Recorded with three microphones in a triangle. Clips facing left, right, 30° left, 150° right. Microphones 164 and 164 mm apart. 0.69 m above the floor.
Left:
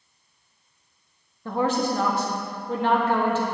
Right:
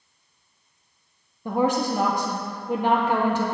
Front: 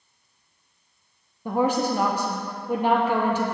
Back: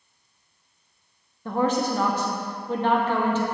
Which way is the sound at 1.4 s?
30° right.